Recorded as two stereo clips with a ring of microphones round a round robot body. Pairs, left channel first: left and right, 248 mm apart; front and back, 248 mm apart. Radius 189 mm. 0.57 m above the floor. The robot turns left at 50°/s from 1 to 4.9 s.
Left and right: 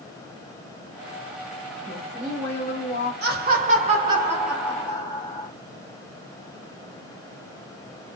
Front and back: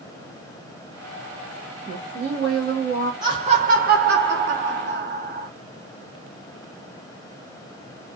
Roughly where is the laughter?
Behind right.